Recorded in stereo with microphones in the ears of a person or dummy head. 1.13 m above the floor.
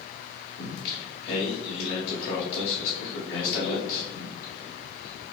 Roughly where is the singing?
Left.